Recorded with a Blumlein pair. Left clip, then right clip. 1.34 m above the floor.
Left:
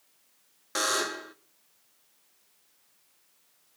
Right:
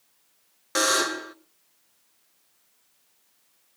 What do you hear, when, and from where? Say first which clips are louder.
0.8 s a buzzer: right 5 dB; 15° right, 0.9 m